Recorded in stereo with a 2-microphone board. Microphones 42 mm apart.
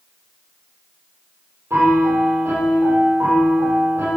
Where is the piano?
70° right (ahead or behind), 7 m.